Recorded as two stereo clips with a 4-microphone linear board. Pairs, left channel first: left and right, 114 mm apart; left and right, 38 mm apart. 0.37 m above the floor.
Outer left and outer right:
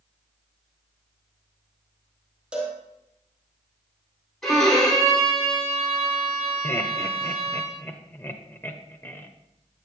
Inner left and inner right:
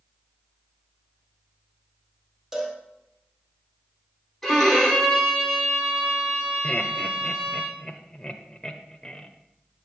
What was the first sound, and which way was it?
A cowbell, 10° right (ahead or behind).